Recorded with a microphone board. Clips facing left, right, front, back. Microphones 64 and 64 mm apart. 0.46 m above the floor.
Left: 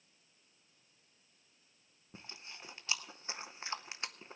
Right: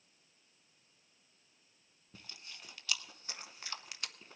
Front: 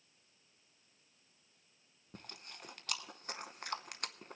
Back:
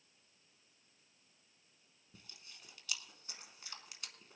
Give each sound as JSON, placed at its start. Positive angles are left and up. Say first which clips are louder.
{"t": 2.1, "sound": "chewing", "louder": "left 2 dB, front 8 dB", "azimuth_deg": 30, "distance_m": 0.7}